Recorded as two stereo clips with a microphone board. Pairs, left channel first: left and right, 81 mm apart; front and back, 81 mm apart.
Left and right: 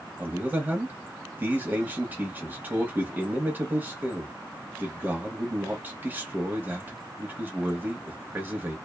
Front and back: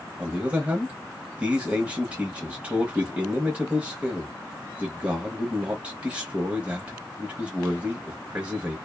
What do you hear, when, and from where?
0.2 s a man speaking: 125° right, 1.0 m